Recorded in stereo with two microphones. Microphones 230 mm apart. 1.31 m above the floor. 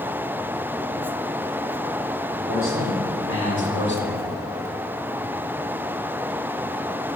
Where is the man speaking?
65° left (ahead or behind), 3.5 m; by 4.2 s 45° left (ahead or behind), 1.6 m.